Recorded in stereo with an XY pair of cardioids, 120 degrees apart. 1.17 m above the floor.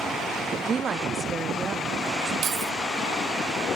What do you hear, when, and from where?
0.6 s a woman speaking: 40° right, 1.6 m
2.4 s keys jangling: 60° right, 1.2 m